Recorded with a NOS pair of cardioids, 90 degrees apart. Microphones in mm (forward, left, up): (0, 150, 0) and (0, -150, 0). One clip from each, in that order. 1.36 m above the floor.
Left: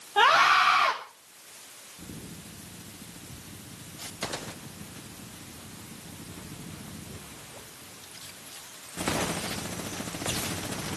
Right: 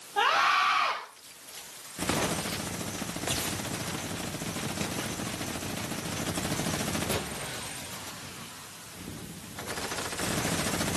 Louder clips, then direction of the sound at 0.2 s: Left 4 dB; 40° left.